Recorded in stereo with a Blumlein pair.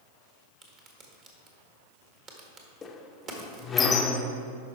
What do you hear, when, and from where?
0.6 s a crack: 30° right, 1.8 m
2.8 s a squeak: 20° left, 0.8 m